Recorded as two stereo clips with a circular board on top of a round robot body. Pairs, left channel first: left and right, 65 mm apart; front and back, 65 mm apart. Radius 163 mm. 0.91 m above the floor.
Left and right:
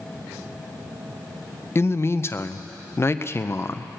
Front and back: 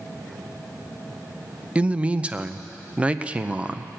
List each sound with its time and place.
1.8 s a man speaking: 115° left, 0.9 m